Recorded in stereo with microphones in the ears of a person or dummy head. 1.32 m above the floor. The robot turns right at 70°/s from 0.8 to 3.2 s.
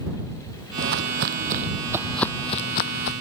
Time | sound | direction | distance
0.8 | footsteps | 50° right (ahead or behind) | ?